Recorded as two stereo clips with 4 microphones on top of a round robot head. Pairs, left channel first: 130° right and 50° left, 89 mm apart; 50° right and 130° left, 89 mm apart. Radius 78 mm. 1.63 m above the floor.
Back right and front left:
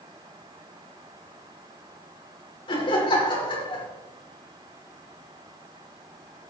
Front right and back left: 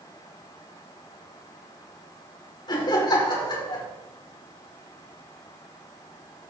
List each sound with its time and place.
2.7 s laughter: 95° right, 5 m